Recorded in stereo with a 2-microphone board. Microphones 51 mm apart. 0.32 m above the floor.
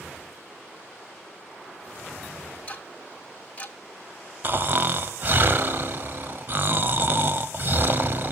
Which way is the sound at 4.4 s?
45° right (ahead or behind).